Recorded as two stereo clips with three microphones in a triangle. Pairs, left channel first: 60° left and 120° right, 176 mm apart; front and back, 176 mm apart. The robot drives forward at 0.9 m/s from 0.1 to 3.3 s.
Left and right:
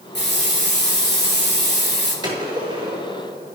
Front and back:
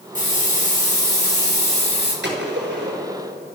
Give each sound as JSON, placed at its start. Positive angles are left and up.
{"t": 0.1, "sound": "a hiss", "azimuth_deg": 45, "distance_m": 8.0}
{"t": 2.2, "sound": "a gunshot", "azimuth_deg": 175, "distance_m": 5.5}